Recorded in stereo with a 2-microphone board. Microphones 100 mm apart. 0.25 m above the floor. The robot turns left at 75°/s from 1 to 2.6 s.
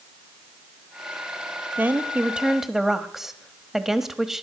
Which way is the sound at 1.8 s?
20° right (ahead or behind).